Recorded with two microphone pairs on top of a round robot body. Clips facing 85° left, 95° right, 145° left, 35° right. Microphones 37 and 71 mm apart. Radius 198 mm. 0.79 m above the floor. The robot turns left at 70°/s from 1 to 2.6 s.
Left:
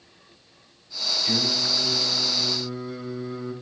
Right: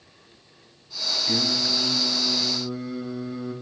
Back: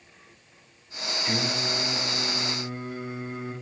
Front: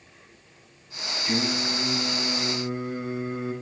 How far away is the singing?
About 3 m.